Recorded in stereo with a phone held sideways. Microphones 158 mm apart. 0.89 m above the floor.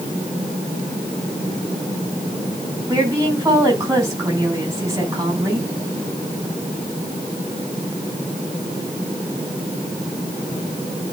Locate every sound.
2.9 s a woman speaking: 20° right (ahead or behind), 6 m